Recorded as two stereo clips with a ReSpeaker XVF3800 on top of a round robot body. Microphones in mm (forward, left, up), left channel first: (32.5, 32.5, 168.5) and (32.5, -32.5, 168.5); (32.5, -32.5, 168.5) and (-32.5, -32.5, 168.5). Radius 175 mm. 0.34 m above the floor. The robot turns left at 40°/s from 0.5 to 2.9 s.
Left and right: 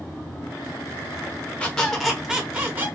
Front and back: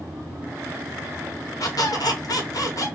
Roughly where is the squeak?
Ahead.